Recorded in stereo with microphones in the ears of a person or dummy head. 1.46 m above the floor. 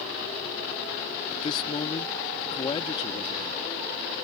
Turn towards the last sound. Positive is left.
turn(degrees=40)  # may be behind; listen again after turning